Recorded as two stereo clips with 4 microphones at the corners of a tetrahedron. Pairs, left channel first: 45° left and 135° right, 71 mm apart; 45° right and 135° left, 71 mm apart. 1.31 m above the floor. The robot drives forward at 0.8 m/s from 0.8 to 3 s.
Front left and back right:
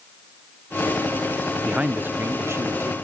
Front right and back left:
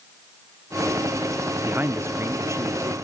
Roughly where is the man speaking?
Behind left.